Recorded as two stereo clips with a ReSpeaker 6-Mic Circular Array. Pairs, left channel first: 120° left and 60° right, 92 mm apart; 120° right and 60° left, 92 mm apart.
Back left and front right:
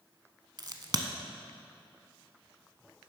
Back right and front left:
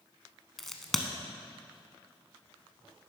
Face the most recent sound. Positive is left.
turn(degrees=-35)